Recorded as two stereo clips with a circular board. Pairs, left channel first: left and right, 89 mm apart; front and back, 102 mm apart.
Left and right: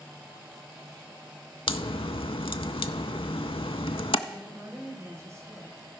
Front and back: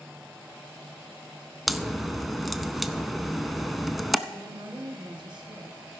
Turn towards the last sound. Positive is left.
turn(degrees=-145)